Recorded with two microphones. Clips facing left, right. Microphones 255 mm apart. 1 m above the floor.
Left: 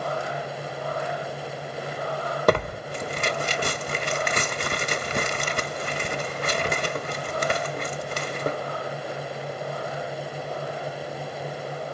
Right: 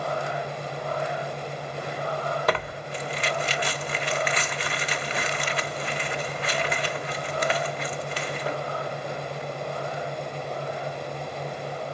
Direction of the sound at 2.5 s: 50° left (ahead or behind).